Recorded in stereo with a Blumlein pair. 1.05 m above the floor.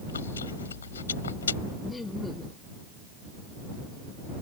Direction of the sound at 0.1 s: 70° left.